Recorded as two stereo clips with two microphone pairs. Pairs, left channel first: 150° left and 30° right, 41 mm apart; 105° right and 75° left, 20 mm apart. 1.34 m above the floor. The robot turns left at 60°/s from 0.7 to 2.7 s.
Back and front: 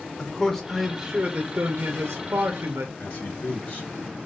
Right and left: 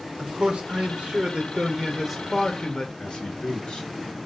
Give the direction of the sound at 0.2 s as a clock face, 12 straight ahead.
10 o'clock.